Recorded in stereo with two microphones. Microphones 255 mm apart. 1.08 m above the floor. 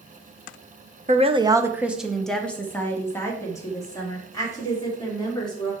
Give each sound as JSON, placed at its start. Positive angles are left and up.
{"t": 1.1, "sound": "a woman speaking", "side_deg": -30, "distance_m": 0.7}